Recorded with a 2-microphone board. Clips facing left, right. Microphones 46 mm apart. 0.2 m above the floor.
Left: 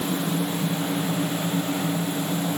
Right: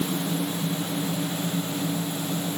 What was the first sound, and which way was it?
Only background noise.